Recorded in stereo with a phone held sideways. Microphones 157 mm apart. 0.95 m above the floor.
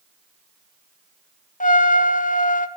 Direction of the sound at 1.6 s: 55° left (ahead or behind).